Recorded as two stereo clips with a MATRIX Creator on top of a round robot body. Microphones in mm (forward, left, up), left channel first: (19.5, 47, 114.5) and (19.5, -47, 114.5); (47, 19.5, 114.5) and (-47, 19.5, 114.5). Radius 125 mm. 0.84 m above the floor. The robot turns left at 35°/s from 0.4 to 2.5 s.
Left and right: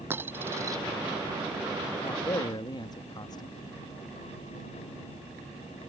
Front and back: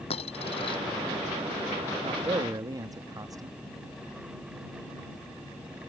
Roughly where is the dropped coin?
Ahead right.